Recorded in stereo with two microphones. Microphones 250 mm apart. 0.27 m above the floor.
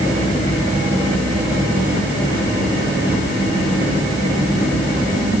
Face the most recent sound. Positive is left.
No sound to turn to.